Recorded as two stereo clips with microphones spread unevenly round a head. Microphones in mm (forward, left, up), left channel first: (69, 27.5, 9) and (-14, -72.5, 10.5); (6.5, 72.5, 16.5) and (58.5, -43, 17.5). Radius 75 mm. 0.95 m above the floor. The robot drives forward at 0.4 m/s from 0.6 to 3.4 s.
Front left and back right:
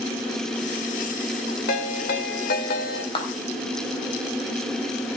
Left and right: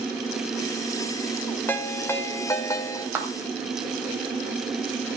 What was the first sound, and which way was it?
A ringtone, 40° left.